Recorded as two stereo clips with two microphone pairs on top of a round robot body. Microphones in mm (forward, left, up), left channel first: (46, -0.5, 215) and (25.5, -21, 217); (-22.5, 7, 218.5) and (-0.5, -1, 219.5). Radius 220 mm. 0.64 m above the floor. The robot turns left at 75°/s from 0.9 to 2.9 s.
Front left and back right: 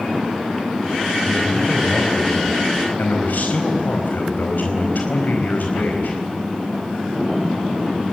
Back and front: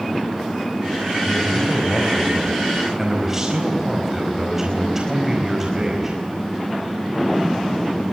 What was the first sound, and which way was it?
A man speaking, straight behind.